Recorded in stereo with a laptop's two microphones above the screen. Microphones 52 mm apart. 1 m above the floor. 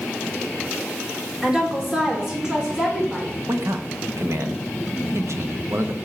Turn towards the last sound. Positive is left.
turn(degrees=-65)  # may be behind; listen again after turning